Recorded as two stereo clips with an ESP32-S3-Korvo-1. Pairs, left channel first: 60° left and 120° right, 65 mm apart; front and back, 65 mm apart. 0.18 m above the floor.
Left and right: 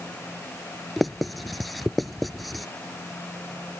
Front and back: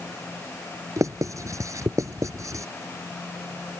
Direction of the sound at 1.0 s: 150° left.